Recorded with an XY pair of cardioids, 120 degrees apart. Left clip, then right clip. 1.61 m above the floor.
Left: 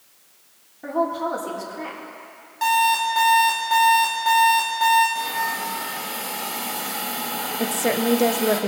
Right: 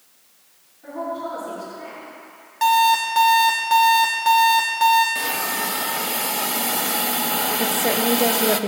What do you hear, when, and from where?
0.8 s a woman speaking: 70° left, 3.5 m
2.6 s an alarm clock: 25° right, 2 m
5.2 s a hiss: 50° right, 0.6 m
7.6 s a woman speaking: 5° left, 0.6 m